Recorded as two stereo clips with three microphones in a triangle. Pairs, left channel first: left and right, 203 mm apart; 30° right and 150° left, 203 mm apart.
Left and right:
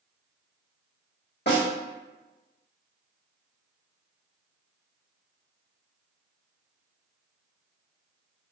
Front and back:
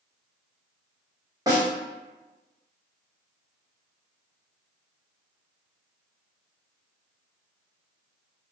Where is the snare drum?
85° left, 1.1 m.